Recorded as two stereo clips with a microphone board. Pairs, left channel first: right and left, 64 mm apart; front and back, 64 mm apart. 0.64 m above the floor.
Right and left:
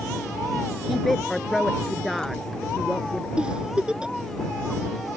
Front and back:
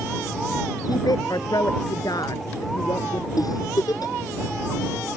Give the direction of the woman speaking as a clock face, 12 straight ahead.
12 o'clock.